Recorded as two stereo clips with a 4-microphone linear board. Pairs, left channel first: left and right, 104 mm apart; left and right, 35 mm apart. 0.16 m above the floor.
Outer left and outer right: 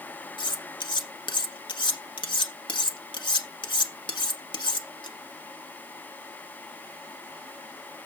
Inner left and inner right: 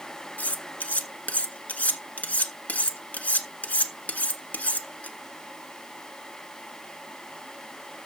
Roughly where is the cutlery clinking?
Left.